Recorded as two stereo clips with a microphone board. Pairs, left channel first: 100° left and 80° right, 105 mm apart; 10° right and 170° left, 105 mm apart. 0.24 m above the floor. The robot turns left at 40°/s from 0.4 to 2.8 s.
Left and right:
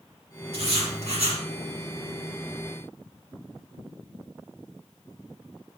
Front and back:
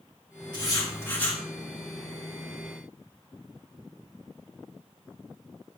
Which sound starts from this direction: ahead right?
Writing, at 0.5 s.